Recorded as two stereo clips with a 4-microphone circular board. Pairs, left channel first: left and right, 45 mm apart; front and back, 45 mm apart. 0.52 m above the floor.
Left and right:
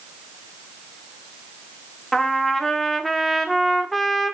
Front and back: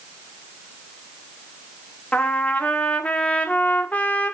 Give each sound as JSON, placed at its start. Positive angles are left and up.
{"t": 2.1, "sound": "a trumpet", "azimuth_deg": 10, "distance_m": 1.5}